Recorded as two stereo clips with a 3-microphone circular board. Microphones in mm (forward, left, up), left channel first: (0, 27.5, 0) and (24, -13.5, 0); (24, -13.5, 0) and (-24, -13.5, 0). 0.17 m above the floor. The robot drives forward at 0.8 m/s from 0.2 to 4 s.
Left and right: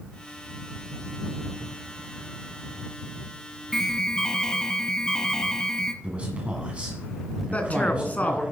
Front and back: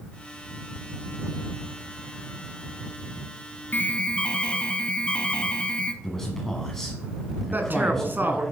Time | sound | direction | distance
3.7 | an alarm | 40° left | 0.9 m
6.0 | a man speaking | 70° right | 1.6 m
7.5 | a man speaking | 165° left | 1.5 m